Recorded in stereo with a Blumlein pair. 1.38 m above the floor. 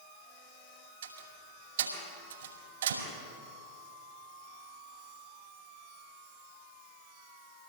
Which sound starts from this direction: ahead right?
A door slam, at 1.0 s.